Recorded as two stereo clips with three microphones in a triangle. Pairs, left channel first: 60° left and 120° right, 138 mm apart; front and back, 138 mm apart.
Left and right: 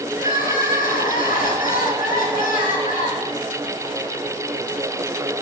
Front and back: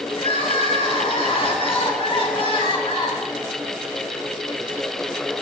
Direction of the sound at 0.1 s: 50° left.